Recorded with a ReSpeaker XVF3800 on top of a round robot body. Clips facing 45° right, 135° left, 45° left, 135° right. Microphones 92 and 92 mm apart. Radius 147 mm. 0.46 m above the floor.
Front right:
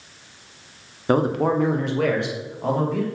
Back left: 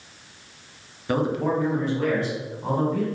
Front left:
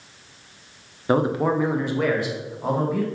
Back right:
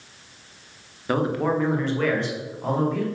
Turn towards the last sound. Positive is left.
turn(degrees=-40)